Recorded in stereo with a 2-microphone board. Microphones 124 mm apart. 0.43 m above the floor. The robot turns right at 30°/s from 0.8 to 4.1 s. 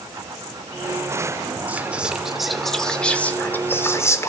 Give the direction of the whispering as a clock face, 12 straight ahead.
1 o'clock.